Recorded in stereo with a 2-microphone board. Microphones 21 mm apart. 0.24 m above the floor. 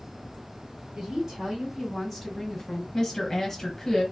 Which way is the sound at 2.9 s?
25° left (ahead or behind).